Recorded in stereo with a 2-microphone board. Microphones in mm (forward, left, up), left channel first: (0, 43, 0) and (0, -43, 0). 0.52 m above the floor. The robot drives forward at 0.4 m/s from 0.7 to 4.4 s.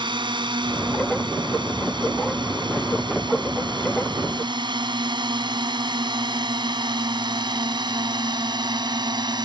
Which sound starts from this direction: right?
A drone, at 0.0 s.